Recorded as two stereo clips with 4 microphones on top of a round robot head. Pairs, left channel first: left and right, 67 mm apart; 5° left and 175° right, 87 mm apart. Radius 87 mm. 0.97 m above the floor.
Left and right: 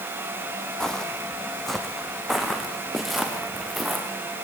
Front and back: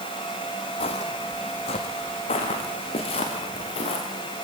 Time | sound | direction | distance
0.8 | footsteps | 10° left | 2 m